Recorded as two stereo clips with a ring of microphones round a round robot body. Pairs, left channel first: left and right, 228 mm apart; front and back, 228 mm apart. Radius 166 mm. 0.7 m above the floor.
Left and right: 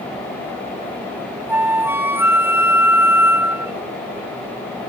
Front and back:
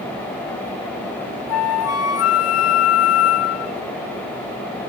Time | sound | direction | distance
1.5 | a flute | 10° right | ?